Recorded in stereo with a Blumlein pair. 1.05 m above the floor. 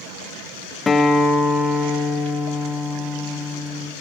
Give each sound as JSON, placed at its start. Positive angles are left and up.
{"t": 0.9, "sound": "a guitar", "azimuth_deg": 10, "distance_m": 0.8}